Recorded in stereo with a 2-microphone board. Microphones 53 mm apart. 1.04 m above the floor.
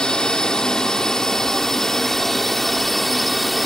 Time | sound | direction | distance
0.0 | a drone | 15° left (ahead or behind) | ?